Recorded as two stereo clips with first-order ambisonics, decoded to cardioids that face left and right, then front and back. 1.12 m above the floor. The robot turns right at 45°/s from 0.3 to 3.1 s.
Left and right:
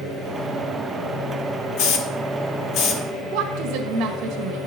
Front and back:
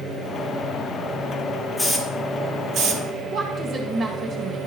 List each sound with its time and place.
1.8 s a hiss: 80° left, 1.2 m; by 3.0 s 140° left, 1.2 m
3.3 s a woman speaking: 115° right, 1.7 m